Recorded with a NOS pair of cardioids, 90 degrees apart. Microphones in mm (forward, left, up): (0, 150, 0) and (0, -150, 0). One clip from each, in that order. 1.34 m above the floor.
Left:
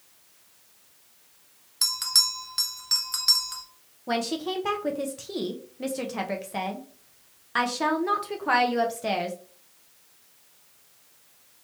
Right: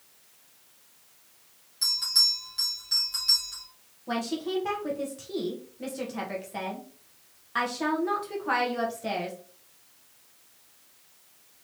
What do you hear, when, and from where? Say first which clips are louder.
1.8 s a bell: even; 65° left, 1.2 m
4.1 s a woman speaking: left 3 dB; 25° left, 0.8 m